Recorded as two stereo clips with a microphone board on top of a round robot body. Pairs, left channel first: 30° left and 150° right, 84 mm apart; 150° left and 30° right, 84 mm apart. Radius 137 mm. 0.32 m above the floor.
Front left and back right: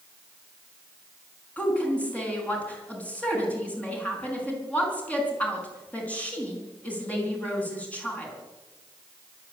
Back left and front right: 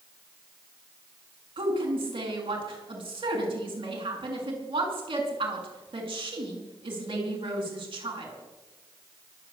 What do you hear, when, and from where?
1.6 s a woman speaking: 45° right, 5 m